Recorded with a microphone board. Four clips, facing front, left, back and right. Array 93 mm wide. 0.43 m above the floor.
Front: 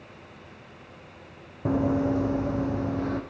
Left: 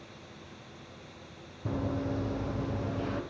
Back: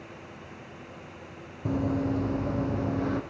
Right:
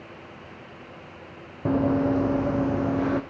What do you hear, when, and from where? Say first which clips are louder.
1.6 s running footsteps: right 11 dB, front 4 dB; 60° right, 1.1 m; by 3.2 s 90° right, 1.6 m